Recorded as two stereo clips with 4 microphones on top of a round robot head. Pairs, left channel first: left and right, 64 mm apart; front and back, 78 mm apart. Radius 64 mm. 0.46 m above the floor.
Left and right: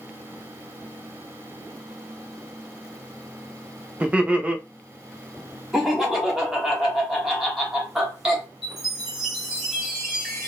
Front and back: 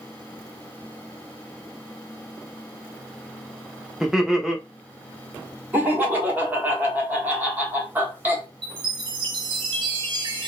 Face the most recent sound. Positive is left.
turn(degrees=-170)